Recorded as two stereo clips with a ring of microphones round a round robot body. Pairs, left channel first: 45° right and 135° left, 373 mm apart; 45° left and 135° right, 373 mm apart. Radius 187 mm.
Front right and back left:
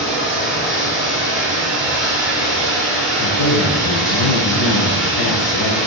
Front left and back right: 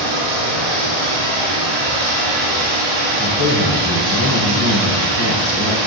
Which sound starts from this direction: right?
A man speaking, at 3.2 s.